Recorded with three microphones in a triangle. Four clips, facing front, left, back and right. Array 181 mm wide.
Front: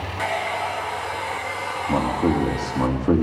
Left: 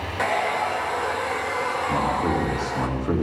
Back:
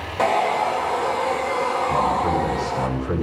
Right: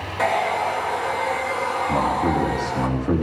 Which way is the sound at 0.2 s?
175° left.